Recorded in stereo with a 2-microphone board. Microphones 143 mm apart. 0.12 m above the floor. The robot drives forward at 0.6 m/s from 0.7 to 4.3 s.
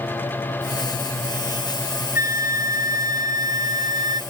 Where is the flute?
75° left (ahead or behind); by 4.2 s 60° left (ahead or behind).